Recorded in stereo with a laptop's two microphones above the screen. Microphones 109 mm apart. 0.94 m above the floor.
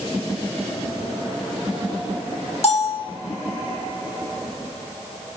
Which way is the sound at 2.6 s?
60° left (ahead or behind).